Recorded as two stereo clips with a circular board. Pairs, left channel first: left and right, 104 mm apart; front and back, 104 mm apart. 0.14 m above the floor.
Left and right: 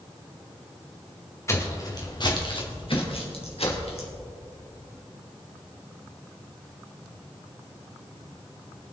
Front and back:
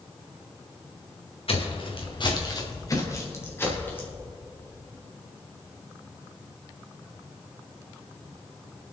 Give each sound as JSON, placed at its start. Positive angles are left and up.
{"t": 1.5, "sound": "footsteps", "azimuth_deg": 25, "distance_m": 2.5}